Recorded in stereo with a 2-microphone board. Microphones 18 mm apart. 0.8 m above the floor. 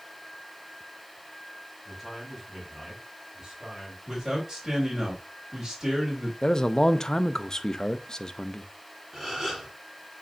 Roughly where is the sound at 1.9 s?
Centre.